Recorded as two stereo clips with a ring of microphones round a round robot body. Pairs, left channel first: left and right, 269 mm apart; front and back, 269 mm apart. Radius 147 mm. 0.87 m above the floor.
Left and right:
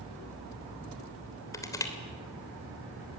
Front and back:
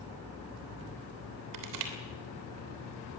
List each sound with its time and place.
1.5 s crushing: 170° left, 3 m